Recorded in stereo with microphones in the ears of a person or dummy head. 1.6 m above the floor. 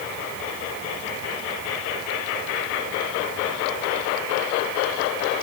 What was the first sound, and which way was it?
Only background noise.